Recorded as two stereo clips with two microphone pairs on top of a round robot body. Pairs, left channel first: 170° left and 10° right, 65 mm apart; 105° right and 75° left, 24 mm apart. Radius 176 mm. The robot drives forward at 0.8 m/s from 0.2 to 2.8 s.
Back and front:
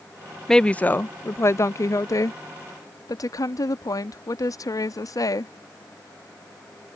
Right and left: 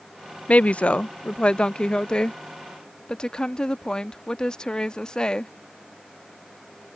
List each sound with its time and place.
0.5 s a woman speaking: 110° right; by 5.5 s 165° right